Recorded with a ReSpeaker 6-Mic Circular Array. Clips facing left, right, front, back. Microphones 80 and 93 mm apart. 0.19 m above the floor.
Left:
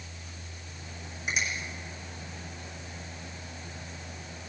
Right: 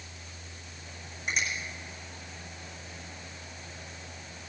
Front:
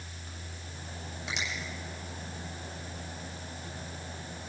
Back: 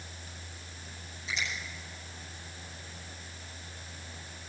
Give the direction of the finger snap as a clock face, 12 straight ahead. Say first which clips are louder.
Even, back 1 dB; 12 o'clock.